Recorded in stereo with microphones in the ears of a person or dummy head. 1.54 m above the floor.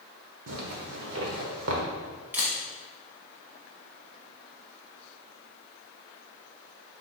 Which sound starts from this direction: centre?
A camera shutter, at 2.3 s.